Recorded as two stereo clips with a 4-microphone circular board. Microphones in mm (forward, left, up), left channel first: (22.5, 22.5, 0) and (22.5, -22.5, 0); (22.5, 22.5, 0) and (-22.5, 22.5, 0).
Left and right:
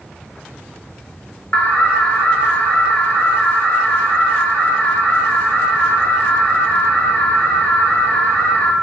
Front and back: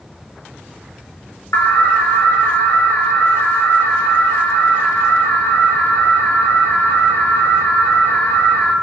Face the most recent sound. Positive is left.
turn(degrees=25)